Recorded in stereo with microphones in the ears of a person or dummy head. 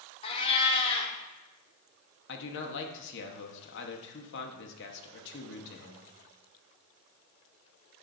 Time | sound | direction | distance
0.2 | a cat meowing | 30° left (ahead or behind) | 1.3 m
2.3 | a man speaking | 65° left (ahead or behind) | 1.3 m